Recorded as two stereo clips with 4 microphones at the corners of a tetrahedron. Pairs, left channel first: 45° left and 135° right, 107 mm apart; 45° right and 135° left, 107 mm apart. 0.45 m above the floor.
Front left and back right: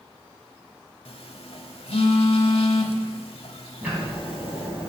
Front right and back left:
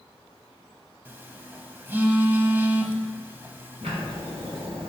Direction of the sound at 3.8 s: 145° left.